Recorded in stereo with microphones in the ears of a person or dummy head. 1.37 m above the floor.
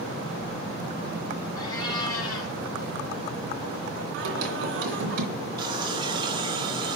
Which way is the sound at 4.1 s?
65° right (ahead or behind).